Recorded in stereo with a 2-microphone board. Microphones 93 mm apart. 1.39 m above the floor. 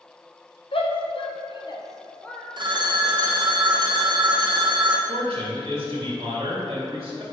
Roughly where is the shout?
Left.